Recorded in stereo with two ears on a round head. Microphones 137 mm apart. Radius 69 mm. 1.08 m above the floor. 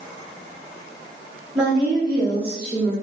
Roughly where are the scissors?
I don't hear scissors.